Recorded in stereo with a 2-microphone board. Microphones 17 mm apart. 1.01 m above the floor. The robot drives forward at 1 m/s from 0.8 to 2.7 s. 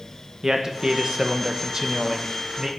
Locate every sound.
0.4 s a man speaking: 35° right (ahead or behind), 1.0 m; by 2.7 s 20° right (ahead or behind), 1.6 m